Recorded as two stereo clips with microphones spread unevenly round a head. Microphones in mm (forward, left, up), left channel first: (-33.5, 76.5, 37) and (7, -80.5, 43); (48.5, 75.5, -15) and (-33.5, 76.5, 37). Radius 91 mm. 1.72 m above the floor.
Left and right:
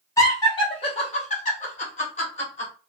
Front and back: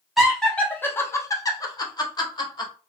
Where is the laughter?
170° left, 0.7 m; by 2.7 s 50° left, 1.3 m.